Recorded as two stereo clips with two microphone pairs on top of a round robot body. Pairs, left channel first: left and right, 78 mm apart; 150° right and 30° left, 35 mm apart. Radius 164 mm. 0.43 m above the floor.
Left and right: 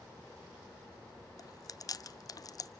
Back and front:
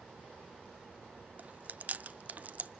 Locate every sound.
1.4 s chewing: 50° left, 0.6 m